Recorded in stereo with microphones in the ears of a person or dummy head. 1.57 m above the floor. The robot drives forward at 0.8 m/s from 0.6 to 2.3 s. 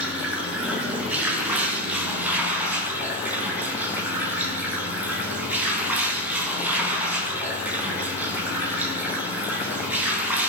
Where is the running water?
5° right (ahead or behind), 5.5 m; by 10.5 s 10° right (ahead or behind), 4.5 m.